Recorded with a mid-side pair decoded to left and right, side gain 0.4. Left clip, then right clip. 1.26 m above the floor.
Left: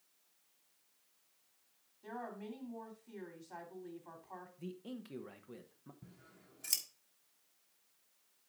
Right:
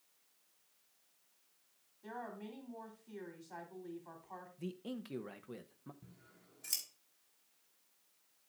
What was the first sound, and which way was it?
A woman speaking, 5° left.